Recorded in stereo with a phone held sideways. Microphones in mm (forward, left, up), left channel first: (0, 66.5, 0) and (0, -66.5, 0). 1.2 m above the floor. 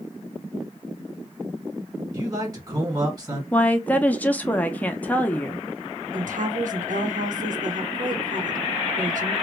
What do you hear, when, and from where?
2.1 s a man speaking: 25° right (ahead or behind), 1.8 m
3.5 s a woman speaking: 10° left (ahead or behind), 0.6 m
6.1 s a woman speaking: 80° right, 0.9 m